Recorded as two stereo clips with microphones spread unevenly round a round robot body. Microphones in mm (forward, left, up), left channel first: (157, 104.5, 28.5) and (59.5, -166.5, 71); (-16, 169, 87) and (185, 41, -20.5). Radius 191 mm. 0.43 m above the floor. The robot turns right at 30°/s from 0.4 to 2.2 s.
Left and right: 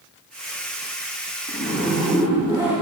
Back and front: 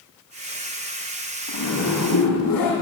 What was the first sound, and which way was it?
A zipper, 135° left.